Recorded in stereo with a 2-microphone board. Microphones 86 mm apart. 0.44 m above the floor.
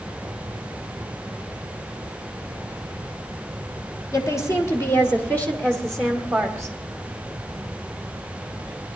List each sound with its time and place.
4.1 s a woman speaking: 40° left (ahead or behind), 1.9 m; by 6.8 s 5° right (ahead or behind), 1.6 m